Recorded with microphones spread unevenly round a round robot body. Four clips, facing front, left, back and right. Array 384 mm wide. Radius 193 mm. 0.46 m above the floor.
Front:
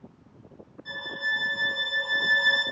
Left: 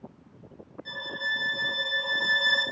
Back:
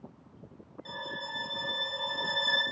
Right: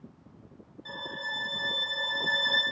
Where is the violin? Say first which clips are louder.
Left 4 dB, front 7 dB; 160° left, 1.3 m.